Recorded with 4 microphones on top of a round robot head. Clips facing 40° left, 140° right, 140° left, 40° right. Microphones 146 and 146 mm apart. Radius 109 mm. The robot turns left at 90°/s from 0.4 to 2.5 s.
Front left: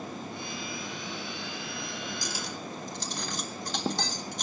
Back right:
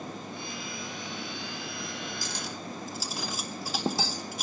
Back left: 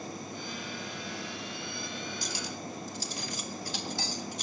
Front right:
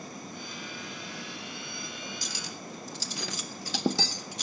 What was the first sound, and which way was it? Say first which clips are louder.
Cutlery clinking: front left 1 dB, back left 3 dB; 30° right.